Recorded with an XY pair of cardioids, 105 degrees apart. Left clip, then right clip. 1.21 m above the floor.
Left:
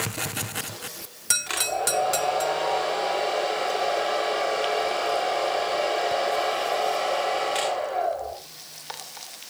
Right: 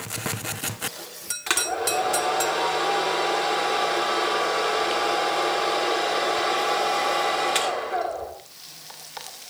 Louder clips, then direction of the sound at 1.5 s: Right 7 dB; 50° right.